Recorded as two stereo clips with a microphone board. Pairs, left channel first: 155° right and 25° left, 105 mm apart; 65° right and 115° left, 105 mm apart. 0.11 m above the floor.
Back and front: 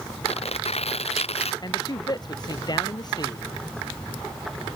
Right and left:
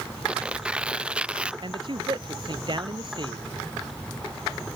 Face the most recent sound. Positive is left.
turn(degrees=155)